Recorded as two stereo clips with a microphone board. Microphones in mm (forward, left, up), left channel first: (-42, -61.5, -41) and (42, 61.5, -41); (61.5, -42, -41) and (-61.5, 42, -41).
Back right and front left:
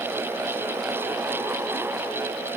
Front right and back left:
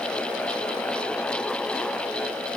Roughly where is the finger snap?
I don't hear a finger snap.